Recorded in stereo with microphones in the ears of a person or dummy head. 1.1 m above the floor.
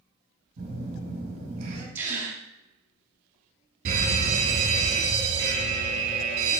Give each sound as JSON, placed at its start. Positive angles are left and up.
{"t": 0.6, "sound": "a phone buzzing", "side_deg": -50, "distance_m": 4.0}
{"t": 1.9, "sound": "a gasp", "side_deg": -15, "distance_m": 1.8}
{"t": 3.9, "sound": "a fire alarm", "side_deg": -50, "distance_m": 3.0}